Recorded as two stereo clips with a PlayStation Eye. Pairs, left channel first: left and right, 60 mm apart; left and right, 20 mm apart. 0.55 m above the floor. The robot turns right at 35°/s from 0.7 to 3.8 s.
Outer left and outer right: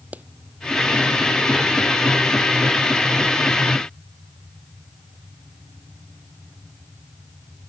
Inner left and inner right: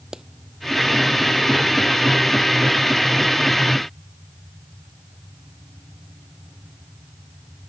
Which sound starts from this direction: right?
A clap, at 0.1 s.